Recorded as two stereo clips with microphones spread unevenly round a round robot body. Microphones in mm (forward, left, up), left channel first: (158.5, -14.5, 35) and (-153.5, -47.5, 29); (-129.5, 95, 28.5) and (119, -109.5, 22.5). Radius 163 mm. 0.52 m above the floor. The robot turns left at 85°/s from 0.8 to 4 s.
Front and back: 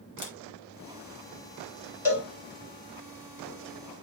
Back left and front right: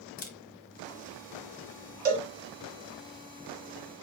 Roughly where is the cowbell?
Right.